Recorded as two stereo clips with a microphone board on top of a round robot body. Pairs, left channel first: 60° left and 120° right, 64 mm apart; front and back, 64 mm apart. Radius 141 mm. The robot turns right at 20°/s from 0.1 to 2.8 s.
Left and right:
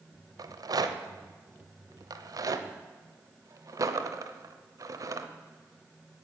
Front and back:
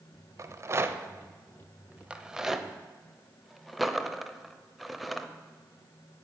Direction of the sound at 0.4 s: 140° right.